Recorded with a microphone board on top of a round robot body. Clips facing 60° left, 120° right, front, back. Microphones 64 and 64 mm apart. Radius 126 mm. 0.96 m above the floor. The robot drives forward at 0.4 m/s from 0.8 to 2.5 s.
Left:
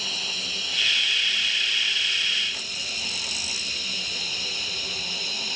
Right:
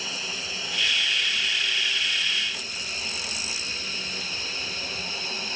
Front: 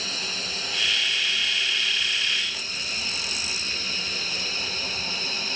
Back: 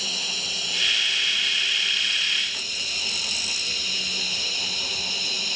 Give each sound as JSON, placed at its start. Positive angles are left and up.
{"t": 0.0, "sound": "running water", "azimuth_deg": -50}